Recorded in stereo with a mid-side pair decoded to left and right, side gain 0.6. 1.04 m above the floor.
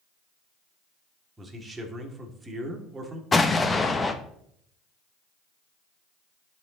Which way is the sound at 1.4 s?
20° right.